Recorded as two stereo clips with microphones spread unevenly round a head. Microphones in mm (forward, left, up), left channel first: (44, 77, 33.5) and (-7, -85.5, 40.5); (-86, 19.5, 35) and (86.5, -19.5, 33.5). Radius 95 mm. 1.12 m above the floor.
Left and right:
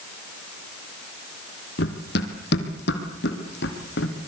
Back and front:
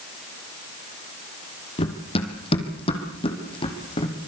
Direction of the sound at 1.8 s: 110° left.